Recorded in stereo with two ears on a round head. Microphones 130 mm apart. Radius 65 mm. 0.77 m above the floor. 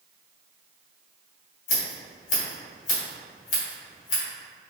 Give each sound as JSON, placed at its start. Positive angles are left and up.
{"t": 1.7, "sound": "scissors", "side_deg": 55, "distance_m": 1.3}